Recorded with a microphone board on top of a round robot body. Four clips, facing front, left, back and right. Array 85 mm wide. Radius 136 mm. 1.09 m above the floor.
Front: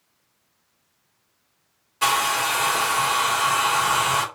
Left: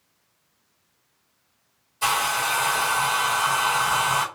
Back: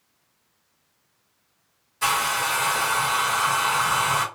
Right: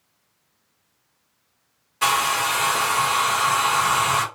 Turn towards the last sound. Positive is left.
turn(degrees=-55)